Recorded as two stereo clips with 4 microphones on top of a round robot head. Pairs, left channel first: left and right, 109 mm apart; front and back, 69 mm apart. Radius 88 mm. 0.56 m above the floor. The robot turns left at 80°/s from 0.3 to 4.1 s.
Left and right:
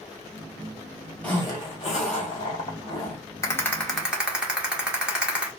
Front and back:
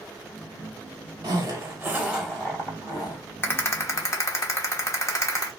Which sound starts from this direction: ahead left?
A rattle, at 3.4 s.